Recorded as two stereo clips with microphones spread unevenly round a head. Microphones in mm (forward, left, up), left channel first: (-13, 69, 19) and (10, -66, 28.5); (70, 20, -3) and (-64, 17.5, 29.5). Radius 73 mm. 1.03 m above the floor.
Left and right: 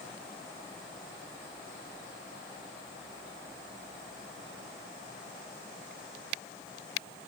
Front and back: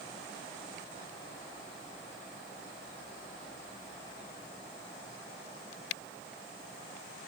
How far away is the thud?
No thud in this recording.